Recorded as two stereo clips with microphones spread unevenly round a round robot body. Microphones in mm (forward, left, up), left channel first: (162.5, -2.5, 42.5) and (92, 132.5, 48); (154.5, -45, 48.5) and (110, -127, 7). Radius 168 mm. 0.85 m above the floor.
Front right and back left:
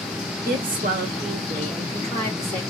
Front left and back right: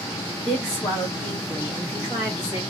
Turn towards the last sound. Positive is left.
turn(degrees=-160)